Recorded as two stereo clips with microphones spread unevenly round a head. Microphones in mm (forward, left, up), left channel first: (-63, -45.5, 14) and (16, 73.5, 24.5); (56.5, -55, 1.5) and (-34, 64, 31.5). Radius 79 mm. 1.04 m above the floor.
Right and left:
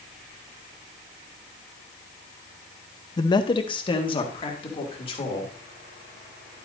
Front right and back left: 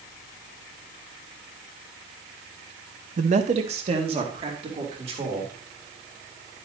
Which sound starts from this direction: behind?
A man speaking, at 3.2 s.